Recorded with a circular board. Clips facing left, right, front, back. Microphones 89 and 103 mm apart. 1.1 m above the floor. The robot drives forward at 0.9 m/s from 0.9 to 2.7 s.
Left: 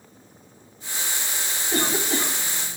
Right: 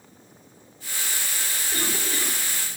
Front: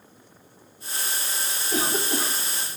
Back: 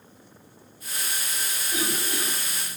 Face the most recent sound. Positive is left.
turn(degrees=60)